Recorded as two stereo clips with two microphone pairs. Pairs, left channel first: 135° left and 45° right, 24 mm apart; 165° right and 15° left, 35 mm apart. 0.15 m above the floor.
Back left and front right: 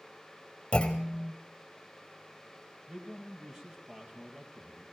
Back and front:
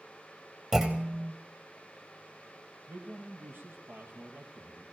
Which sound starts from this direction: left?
A clunk, at 0.7 s.